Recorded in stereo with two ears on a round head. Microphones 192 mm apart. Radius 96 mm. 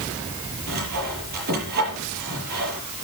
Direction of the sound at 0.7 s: 45° right (ahead or behind).